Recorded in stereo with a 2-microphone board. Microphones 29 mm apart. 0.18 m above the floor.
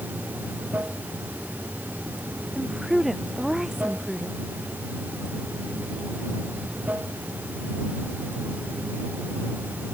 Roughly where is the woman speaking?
Centre.